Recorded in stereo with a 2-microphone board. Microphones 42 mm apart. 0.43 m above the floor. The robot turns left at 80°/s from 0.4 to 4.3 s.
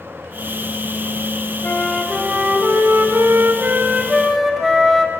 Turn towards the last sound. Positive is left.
turn(degrees=180)